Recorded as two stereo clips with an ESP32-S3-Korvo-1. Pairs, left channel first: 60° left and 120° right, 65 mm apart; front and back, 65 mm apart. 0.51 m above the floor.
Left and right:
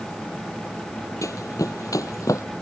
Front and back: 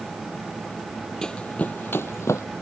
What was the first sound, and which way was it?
Running footsteps, 80° left.